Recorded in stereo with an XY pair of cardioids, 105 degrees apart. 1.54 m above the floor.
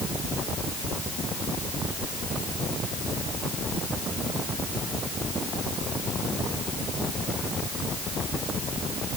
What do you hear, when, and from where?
Only background noise.